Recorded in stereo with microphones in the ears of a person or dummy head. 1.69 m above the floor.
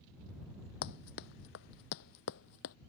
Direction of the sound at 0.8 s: 55° left (ahead or behind).